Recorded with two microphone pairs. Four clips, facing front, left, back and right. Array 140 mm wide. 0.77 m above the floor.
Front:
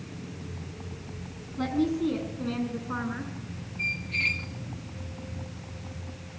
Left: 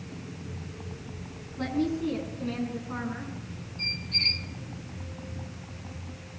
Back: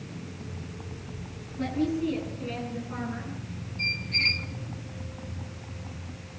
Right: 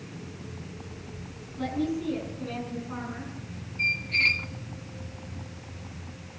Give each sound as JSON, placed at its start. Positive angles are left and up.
{"t": 1.6, "sound": "a woman speaking", "azimuth_deg": 10, "distance_m": 7.5}
{"t": 3.8, "sound": "a squeak", "azimuth_deg": -95, "distance_m": 0.9}